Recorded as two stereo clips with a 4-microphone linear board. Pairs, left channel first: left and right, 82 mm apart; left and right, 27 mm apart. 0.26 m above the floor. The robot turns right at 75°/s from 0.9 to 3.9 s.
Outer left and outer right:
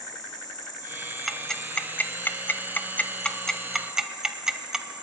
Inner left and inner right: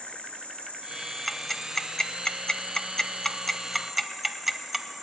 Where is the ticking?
Centre (ahead or behind), 0.7 m; by 4.9 s 5° right (ahead or behind), 0.7 m.